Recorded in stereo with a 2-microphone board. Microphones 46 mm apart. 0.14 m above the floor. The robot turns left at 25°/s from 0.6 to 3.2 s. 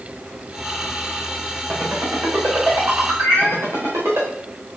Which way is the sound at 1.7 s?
60° right (ahead or behind).